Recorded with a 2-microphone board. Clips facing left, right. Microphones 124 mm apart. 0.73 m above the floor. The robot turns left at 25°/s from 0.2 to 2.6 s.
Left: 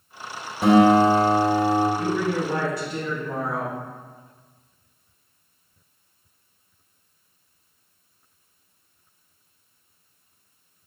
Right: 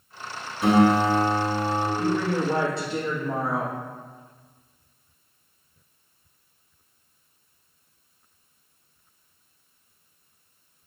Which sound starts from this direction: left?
A guitar, at 0.6 s.